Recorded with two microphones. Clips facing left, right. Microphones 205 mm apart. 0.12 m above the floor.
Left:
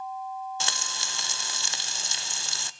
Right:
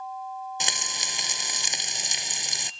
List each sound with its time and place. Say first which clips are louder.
0.6 s frying: right 1 dB; 20° right (ahead or behind), 0.5 m